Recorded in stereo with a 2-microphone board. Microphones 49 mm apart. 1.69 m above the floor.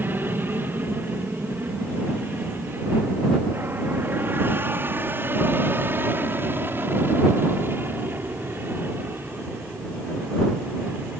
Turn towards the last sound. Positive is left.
turn(degrees=-45)  # may be behind; listen again after turning